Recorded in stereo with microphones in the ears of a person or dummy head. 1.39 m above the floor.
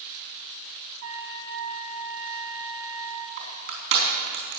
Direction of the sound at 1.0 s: 70° right (ahead or behind).